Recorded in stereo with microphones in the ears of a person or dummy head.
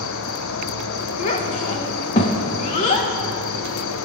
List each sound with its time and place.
0.0 s an insect: 70° left (ahead or behind), 0.8 m
1.2 s a child speaking: 25° left (ahead or behind), 1.0 m